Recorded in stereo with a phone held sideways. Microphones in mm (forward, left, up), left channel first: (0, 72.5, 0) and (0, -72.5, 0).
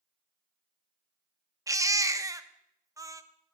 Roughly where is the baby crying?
Right.